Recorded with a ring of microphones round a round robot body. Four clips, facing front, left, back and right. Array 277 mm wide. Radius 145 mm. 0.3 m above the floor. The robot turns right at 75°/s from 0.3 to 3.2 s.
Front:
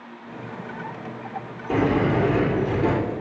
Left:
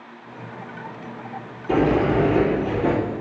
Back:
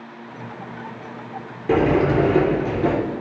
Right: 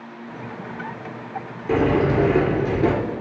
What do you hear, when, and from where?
1.7 s a sliding door: 170° right, 3.5 m; by 2.9 s 75° right, 3.5 m